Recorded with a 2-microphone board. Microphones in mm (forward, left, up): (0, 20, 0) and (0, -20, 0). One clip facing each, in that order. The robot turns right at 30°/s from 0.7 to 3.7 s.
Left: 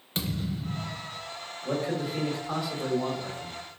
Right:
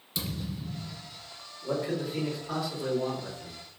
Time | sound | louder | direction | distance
0.1 | a thud | left 4 dB | 50° left (ahead or behind) | 0.7 m
1.6 | a man speaking | left 1 dB | 30° right | 1.9 m